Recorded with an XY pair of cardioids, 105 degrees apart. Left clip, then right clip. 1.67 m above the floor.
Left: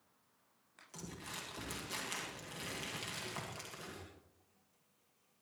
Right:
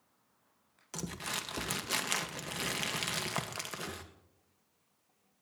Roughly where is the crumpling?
Right.